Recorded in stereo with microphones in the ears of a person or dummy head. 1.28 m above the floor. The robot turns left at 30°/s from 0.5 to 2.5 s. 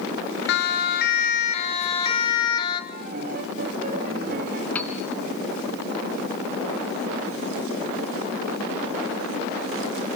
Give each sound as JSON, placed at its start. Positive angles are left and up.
{"t": 0.5, "sound": "a siren", "side_deg": 65, "distance_m": 3.0}
{"t": 2.9, "sound": "a piano", "side_deg": -50, "distance_m": 2.5}
{"t": 4.8, "sound": "a piano", "side_deg": 10, "distance_m": 2.5}